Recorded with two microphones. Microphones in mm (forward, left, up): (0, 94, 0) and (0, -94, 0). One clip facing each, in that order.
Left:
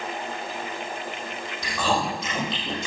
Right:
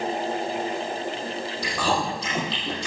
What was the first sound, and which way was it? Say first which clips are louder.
Chewing: left 1 dB; 30° right (ahead or behind).